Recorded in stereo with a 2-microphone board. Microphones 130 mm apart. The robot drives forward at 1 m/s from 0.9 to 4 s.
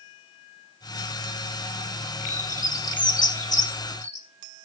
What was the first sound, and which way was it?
A bird, 65° left (ahead or behind).